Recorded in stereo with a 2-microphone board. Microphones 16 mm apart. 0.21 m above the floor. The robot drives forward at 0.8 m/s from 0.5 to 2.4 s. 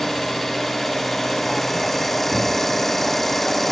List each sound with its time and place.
0.0 s an engine running: 15° left (ahead or behind), 4.5 m; by 3.7 s 20° left (ahead or behind), 3 m